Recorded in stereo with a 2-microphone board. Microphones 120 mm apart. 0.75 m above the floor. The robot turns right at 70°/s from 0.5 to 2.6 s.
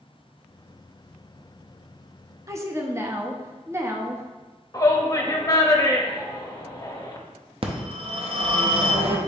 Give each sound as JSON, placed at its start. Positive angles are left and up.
{"t": 2.5, "sound": "a woman speaking", "side_deg": -25, "distance_m": 0.6}
{"t": 4.7, "sound": "a shout", "side_deg": 30, "distance_m": 0.7}
{"t": 7.6, "sound": "a phone ringing", "side_deg": -50, "distance_m": 0.6}